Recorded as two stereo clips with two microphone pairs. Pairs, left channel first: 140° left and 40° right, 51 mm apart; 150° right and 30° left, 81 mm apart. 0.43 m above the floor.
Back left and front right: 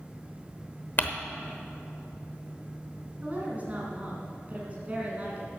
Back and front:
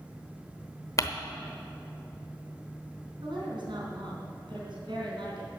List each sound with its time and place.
1.0 s crumpling: 175° left, 0.9 m
3.2 s a woman speaking: 20° left, 3.5 m